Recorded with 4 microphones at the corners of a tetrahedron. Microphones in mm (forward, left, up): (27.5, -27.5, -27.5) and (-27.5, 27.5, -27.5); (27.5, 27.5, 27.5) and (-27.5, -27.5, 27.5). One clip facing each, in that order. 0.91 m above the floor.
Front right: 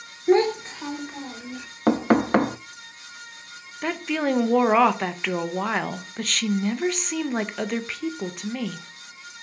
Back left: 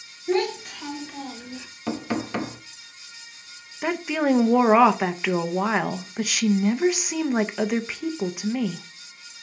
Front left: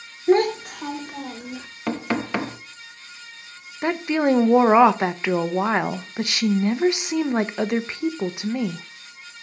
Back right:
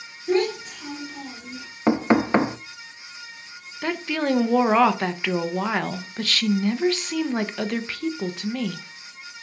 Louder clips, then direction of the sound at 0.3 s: Front right 5 dB, front left 4 dB; straight ahead.